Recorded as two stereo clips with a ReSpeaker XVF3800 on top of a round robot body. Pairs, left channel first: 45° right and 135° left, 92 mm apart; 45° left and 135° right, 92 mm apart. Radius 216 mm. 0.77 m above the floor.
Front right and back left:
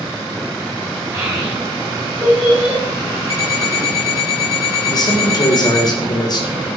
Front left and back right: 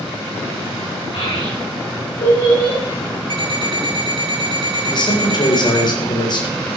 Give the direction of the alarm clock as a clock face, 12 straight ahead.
3 o'clock.